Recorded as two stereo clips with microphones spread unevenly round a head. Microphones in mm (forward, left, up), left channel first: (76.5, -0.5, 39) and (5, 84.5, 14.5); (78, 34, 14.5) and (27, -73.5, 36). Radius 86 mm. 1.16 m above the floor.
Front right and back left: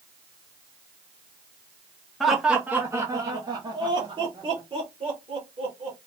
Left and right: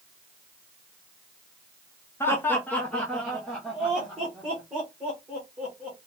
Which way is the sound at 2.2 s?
60° left.